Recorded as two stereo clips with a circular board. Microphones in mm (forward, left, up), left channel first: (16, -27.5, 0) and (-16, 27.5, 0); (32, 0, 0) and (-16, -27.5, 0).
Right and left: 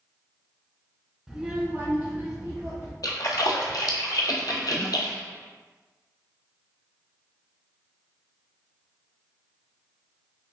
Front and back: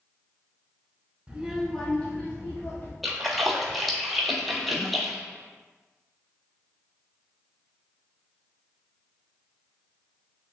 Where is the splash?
60° right, 0.6 m.